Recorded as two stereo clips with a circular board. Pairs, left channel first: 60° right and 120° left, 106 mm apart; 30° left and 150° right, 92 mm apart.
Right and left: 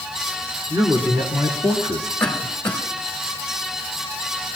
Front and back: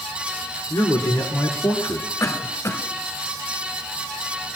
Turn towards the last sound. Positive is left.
turn(degrees=20)